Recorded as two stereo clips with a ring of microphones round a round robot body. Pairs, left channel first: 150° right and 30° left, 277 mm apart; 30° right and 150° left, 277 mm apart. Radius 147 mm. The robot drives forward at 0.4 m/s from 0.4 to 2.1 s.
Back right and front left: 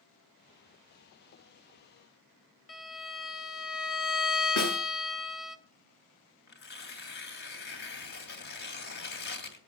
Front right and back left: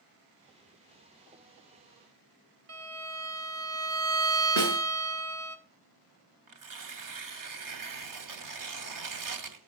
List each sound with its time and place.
2.7 s a violin: 175° left, 2 m
4.6 s a snare drum: 175° right, 7.5 m
6.5 s tearing paper: 155° left, 2.5 m